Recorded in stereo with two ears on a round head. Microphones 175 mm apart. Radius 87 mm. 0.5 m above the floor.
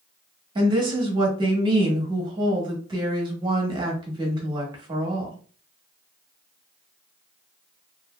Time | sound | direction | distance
0.6 | a woman speaking | 25° right (ahead or behind) | 0.8 m